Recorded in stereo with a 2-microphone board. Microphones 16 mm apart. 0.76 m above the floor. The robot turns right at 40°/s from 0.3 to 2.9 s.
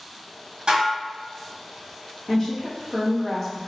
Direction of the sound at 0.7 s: 65° right (ahead or behind).